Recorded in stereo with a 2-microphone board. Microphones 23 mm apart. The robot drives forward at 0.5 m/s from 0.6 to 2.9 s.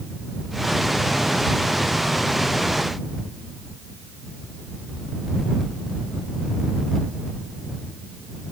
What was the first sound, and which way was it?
Only background noise.